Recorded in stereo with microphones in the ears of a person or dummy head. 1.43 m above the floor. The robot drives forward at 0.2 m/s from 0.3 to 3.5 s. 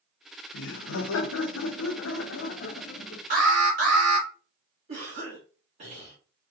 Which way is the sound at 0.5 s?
75° left (ahead or behind).